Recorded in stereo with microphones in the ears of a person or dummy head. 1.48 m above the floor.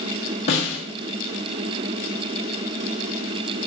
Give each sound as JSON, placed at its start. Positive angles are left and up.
{"t": 0.5, "sound": "a snare drum", "side_deg": 35, "distance_m": 1.1}